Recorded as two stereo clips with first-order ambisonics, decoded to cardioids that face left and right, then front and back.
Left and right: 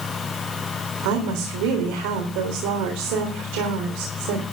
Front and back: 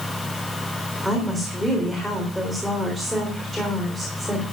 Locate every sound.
1.0 s a woman speaking: 85° right, 4 m